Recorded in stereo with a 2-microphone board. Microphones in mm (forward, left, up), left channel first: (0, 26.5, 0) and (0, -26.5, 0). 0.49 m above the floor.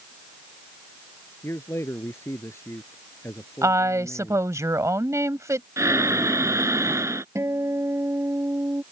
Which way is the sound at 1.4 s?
55° left (ahead or behind).